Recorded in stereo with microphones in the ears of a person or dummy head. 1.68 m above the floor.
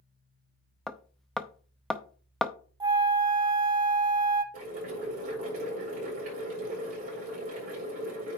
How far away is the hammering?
About 0.5 m.